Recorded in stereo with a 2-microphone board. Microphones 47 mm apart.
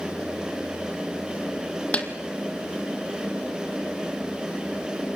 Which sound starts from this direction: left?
A snare drum, at 1.9 s.